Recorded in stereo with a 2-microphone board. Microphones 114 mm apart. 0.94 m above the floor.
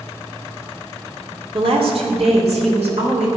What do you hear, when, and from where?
1.5 s a woman speaking: 55° right (ahead or behind), 2.5 m; by 3.3 s 75° right (ahead or behind), 4.5 m